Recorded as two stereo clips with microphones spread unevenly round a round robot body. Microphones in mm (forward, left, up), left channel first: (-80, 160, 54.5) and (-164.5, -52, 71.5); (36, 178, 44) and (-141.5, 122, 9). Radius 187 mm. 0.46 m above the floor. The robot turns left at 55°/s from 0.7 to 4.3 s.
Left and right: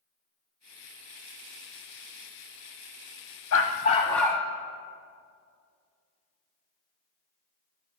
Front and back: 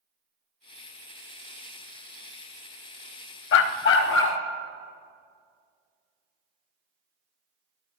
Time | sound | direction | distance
3.5 | a dog barking | 15° left | 0.6 m